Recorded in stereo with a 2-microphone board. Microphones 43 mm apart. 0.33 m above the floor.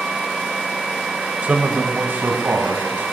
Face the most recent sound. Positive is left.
turn(degrees=-50)  # may be behind; listen again after turning